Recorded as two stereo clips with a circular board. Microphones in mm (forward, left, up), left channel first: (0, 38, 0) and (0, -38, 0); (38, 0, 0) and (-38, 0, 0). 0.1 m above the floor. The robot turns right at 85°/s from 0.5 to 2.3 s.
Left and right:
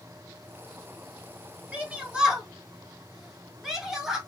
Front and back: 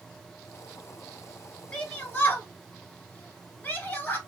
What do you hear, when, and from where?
1.7 s a shout: 60° right, 1.1 m; by 4.2 s 10° right, 1.1 m